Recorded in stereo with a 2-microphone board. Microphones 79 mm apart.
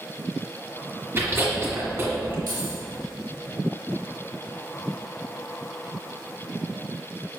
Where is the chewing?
35° right (ahead or behind), 2 m.